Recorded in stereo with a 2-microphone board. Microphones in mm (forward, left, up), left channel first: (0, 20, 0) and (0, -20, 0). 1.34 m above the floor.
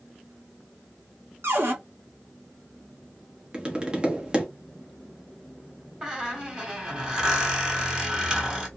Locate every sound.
1.4 s a cupboard door: 65° right (ahead or behind), 0.8 m
3.5 s tapping: 20° right (ahead or behind), 0.8 m
6.0 s a squeak: 20° right (ahead or behind), 1.1 m